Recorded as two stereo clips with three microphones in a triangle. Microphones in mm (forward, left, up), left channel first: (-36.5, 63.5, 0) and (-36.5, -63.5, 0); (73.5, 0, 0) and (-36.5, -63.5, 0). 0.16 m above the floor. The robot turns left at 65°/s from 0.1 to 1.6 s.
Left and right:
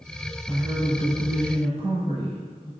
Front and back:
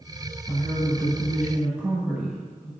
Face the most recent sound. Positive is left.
turn(degrees=-75)